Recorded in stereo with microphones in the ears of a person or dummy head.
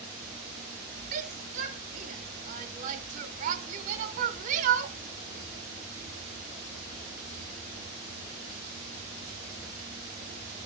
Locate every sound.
1.1 s a shout: 40° right (ahead or behind), 0.9 m